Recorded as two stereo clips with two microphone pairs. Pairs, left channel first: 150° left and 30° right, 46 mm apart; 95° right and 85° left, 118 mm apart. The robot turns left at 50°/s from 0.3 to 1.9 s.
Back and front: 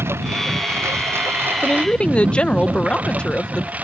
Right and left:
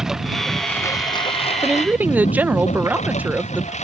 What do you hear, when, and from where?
0.0 s a lawn mower: straight ahead; by 3.9 s 80° right
1.6 s a woman speaking: 150° left; by 3.8 s 135° left